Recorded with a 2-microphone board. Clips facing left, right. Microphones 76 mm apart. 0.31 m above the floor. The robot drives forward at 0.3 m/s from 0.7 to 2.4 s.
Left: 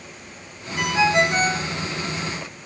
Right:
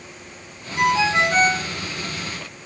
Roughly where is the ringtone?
Right.